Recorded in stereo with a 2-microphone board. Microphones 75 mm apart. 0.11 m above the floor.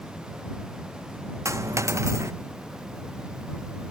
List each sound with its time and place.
1.4 s a dropped coin: 40° right (ahead or behind)